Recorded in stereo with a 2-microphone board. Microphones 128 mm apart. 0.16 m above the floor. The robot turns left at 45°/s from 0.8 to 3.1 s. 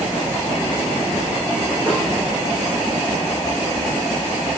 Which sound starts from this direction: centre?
A snare drum, at 1.9 s.